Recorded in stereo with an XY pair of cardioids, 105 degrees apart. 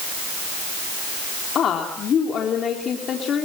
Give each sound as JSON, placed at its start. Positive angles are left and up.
{"t": 1.6, "sound": "a woman speaking", "azimuth_deg": 55, "distance_m": 3.5}